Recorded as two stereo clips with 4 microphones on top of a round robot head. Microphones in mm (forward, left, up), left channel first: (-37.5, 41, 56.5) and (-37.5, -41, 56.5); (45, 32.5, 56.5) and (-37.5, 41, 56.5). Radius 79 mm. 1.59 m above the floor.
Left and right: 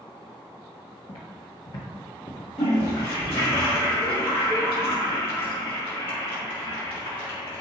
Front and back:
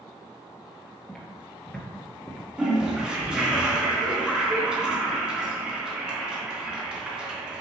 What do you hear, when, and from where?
1.1 s footsteps: 70° left, 1.9 m
2.6 s a toilet flushing: 95° left, 2.5 m